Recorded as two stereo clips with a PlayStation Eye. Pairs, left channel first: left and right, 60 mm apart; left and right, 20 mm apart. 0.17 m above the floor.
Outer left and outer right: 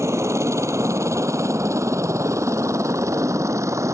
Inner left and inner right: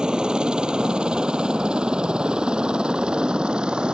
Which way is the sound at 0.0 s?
50° right (ahead or behind).